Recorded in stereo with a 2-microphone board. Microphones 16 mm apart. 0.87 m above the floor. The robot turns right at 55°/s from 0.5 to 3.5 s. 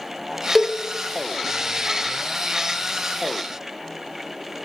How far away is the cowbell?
About 0.8 m.